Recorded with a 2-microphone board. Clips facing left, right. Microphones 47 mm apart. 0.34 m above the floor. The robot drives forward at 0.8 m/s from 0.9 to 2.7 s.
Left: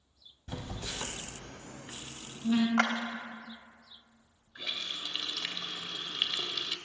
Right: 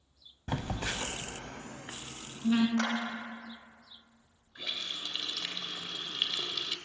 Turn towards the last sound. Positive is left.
turn(degrees=15)  # may be behind; listen again after turning